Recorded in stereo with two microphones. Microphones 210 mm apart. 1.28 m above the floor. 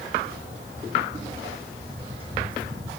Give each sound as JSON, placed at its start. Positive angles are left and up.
{"t": 0.2, "sound": "footsteps", "side_deg": -45, "distance_m": 3.0}